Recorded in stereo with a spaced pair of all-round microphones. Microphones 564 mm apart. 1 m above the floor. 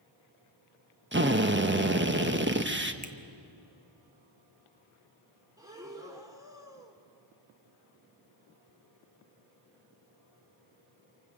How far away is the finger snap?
About 1.3 m.